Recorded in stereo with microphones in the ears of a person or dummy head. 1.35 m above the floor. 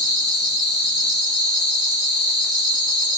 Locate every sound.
0.0 s an insect: 85° left, 3 m